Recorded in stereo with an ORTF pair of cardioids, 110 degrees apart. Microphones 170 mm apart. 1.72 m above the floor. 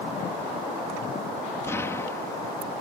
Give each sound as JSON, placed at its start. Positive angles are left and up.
{"t": 1.6, "sound": "an explosion", "azimuth_deg": 15}